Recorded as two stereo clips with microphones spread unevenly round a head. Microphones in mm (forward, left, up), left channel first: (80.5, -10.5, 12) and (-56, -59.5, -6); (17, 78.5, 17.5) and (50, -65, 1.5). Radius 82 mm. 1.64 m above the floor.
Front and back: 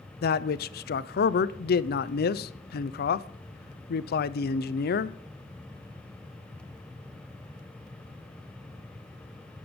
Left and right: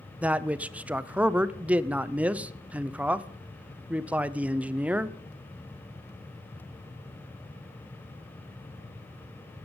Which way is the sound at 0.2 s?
5° left.